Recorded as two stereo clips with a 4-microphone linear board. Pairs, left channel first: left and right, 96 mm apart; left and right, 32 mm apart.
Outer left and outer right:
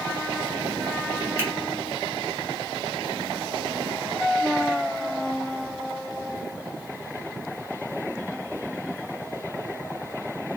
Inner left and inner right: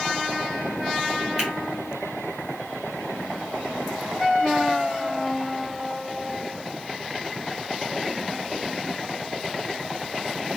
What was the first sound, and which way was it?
A finger snap, 25° right (ahead or behind).